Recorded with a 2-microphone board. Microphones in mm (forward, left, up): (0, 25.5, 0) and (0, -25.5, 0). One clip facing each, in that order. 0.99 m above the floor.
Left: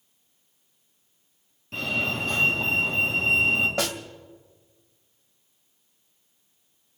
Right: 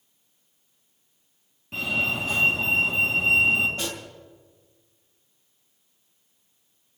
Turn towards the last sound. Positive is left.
turn(degrees=80)